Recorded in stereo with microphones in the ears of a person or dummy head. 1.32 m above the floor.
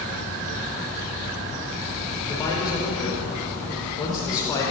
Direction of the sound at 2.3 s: 20° left (ahead or behind).